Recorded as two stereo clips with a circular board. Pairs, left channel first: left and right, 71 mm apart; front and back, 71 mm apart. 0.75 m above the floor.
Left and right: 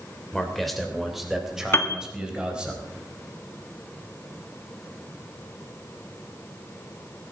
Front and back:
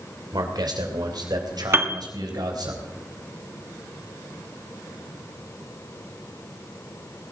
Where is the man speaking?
175° left, 2.5 m; by 2.7 s 165° right, 4 m.